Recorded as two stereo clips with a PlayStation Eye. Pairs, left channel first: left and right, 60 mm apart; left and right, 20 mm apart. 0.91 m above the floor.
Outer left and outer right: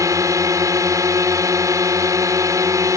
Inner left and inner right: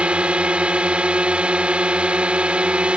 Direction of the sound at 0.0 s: 70° right (ahead or behind).